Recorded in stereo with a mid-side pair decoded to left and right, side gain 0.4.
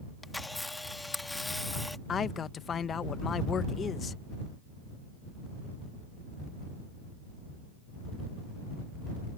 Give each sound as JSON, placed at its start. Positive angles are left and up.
{"t": 0.2, "sound": "a camera shutter", "azimuth_deg": 15}
{"t": 2.1, "sound": "a man speaking", "azimuth_deg": 55}